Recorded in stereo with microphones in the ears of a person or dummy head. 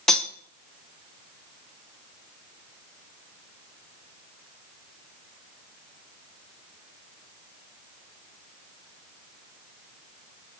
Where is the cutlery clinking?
5° left (ahead or behind), 0.6 m.